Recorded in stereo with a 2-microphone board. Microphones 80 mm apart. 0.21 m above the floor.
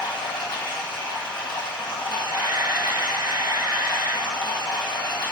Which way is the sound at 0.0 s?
85° left.